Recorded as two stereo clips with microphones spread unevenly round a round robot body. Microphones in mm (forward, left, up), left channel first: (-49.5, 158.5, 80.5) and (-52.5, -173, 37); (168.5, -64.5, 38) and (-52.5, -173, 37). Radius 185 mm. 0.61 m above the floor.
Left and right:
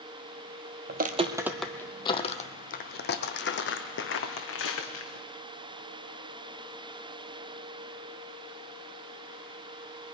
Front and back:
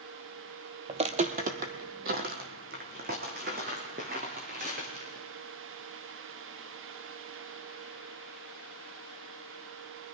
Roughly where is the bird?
No bird in this recording.